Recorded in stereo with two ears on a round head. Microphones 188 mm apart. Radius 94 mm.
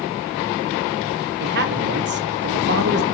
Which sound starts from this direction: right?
A man speaking, at 1.4 s.